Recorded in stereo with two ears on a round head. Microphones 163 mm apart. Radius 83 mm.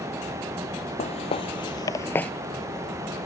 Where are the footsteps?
35° left (ahead or behind); by 2.3 s 5° left (ahead or behind).